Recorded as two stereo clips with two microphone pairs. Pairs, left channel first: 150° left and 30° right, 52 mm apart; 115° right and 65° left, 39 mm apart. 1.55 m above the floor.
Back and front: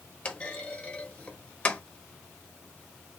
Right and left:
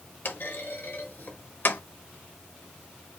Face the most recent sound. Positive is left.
turn(degrees=-150)